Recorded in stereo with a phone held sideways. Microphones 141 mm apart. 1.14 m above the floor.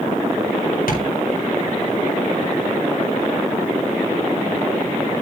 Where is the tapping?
85° left, 4.5 m.